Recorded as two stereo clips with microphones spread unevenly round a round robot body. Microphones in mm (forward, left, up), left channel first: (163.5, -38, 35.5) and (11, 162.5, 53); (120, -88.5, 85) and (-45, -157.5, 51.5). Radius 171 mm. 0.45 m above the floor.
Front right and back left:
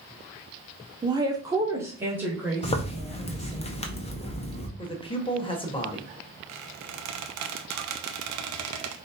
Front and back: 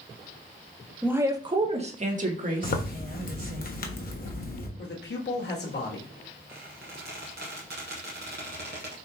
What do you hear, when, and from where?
1.0 s a woman speaking: 175° left, 0.8 m; by 3.6 s 145° right, 2 m
2.6 s a zipper: straight ahead, 1.2 m
4.8 s a man speaking: 10° left, 1.6 m
6.5 s a squeak: 140° left, 0.6 m